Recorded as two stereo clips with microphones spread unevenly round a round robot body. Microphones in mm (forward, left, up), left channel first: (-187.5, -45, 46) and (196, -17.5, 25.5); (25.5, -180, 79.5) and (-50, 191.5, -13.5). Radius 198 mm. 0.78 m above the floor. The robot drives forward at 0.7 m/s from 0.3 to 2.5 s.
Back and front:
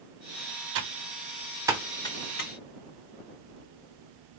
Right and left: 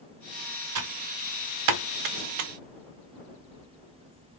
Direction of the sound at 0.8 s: 50° left.